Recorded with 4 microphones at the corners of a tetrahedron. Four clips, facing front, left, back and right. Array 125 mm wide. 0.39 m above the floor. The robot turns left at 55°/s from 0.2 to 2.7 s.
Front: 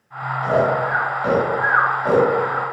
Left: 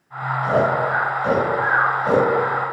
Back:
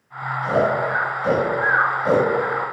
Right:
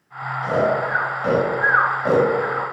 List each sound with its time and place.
0.4 s snoring: 10° left, 3.5 m; by 2.7 s 115° right, 3.5 m